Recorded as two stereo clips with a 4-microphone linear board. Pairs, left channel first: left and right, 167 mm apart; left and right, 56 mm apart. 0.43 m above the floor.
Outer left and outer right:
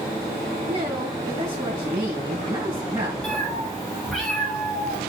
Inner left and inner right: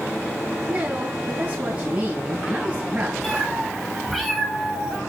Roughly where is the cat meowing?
Centre.